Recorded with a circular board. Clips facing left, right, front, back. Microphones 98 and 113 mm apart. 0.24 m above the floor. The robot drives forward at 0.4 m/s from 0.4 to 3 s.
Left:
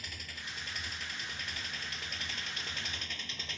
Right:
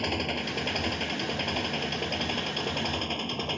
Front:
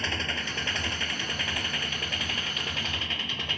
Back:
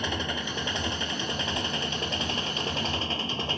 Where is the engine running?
105° right; by 3.6 s 120° right.